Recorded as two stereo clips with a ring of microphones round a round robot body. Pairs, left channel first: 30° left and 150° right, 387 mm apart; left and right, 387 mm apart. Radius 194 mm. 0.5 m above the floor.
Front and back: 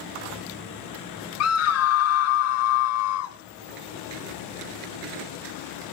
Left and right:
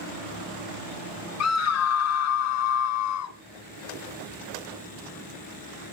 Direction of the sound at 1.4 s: 60° left.